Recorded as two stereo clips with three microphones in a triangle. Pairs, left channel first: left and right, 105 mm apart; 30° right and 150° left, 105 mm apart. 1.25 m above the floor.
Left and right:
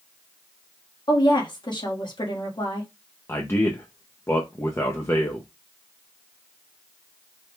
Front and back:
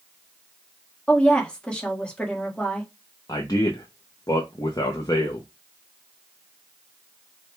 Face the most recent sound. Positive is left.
turn(degrees=25)